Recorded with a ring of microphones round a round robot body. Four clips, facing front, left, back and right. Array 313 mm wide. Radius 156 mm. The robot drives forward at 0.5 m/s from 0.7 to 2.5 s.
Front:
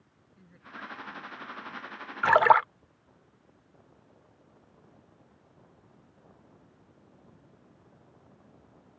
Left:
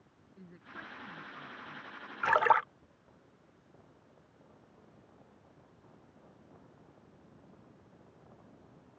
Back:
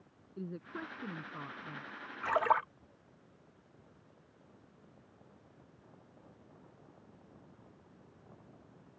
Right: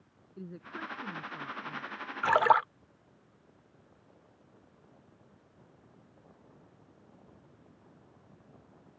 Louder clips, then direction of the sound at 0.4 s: Right 8 dB, back 4 dB; 150° right.